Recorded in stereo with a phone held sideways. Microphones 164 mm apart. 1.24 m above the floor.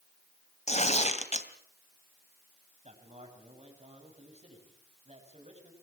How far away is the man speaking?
About 8 m.